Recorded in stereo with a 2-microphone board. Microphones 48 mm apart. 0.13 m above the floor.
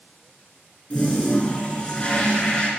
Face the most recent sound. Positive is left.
turn(degrees=25)  # may be behind; listen again after turning